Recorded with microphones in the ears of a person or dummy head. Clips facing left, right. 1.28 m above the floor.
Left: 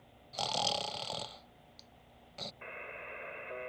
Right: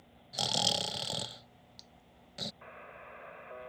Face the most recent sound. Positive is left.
turn(degrees=40)  # may be behind; listen again after turning